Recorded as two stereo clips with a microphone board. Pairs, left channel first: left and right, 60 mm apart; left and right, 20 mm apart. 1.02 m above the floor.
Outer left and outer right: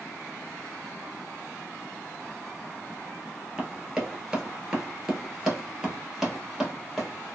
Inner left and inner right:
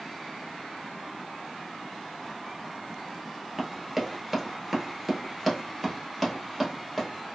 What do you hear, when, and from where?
3.6 s running footsteps: 10° right (ahead or behind), 1.1 m; by 7.1 s 5° right (ahead or behind), 1.6 m